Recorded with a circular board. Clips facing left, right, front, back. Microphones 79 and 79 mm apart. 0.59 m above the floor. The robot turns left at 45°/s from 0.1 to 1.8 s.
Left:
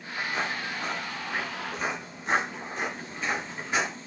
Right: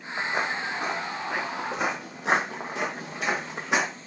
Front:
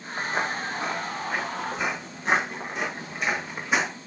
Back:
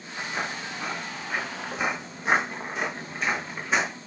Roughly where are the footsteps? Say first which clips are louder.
Right 3 dB, front 4 dB; ahead right.